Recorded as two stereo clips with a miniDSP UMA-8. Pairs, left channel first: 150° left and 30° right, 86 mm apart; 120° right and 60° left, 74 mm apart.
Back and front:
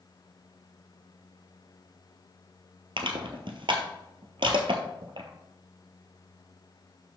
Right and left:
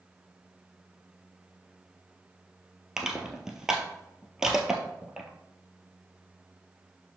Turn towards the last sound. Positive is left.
turn(degrees=-25)